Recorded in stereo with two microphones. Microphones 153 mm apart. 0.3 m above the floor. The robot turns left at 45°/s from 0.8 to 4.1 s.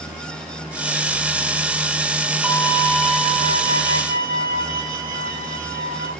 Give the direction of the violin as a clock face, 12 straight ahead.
12 o'clock.